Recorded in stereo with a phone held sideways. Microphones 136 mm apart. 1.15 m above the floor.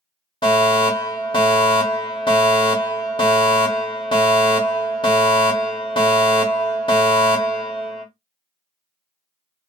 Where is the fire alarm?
35° left (ahead or behind), 1.7 m.